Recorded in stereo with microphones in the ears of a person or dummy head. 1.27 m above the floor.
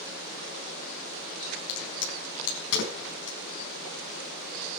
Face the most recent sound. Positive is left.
turn(degrees=70)  # may be behind; listen again after turning